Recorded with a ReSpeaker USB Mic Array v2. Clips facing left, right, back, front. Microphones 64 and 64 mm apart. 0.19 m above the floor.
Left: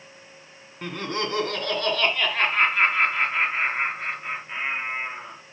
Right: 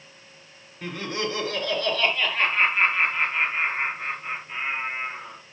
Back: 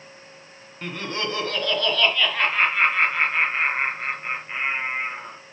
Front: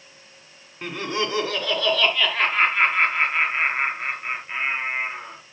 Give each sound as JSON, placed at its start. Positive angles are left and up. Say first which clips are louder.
{"t": 0.8, "sound": "laughter", "louder": "left 1 dB, front 3 dB", "azimuth_deg": 75, "distance_m": 2.5}